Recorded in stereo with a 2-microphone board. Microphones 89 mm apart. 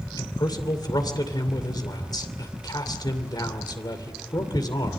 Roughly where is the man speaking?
Left.